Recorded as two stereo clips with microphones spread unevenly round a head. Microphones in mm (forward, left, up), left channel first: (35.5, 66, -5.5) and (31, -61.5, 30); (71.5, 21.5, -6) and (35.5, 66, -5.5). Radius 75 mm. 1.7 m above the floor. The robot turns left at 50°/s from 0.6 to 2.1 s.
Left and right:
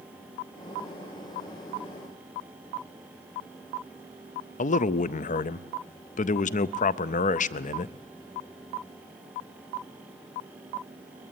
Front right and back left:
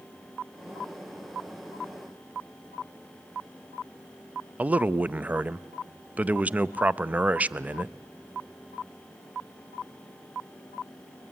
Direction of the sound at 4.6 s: 65° left.